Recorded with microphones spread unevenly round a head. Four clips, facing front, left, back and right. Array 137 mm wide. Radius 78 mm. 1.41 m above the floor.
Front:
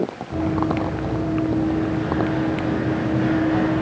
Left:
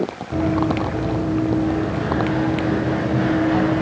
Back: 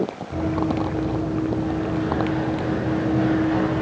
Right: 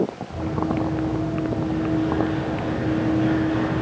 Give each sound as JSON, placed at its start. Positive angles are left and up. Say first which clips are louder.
{"t": 0.3, "sound": "running footsteps", "louder": "left 7 dB, front 1 dB", "azimuth_deg": 75, "distance_m": 4.5}